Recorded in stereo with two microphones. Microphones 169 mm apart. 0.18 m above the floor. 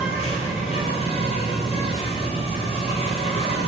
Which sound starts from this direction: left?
An insect, at 0.0 s.